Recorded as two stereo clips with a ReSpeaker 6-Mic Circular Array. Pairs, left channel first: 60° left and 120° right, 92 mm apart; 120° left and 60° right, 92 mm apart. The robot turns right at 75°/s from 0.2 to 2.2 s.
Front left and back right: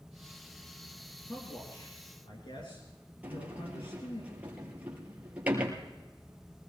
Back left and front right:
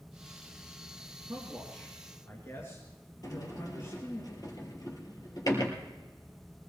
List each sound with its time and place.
1.3 s a man speaking: 5° right, 3.5 m; by 4.2 s 60° left, 3.5 m
3.2 s a sliding door: 165° left, 3.5 m